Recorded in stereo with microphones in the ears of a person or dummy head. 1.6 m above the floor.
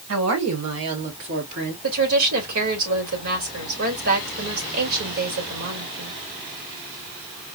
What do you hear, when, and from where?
0.1 s a woman speaking: 75° right (ahead or behind), 1.6 m; by 1.7 s 55° right (ahead or behind), 1.6 m
1.8 s a woman speaking: 80° right, 2.5 m